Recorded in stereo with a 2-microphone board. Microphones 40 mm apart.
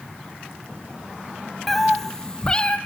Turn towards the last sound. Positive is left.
turn(degrees=25)  # may be behind; listen again after turning